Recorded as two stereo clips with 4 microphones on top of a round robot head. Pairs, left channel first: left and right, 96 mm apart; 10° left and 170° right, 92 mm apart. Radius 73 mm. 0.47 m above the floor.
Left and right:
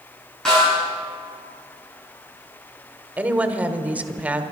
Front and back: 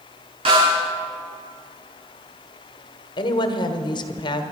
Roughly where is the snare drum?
Behind.